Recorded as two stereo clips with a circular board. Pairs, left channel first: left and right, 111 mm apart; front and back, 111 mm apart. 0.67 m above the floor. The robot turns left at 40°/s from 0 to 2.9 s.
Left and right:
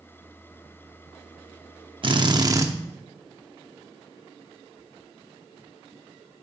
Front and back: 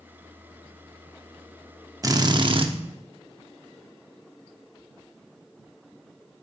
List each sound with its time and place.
2.0 s a drill: 125° right, 0.8 m; by 2.7 s 150° right, 0.8 m